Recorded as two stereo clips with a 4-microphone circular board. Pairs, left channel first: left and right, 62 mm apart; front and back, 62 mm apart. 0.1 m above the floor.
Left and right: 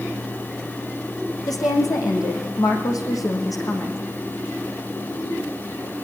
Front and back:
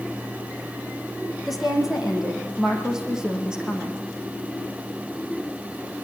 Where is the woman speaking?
95° left, 6 m; by 4.0 s 105° left, 7 m.